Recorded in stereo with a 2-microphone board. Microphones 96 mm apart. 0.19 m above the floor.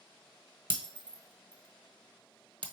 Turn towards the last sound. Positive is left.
turn(degrees=-55)  # may be behind; listen again after turning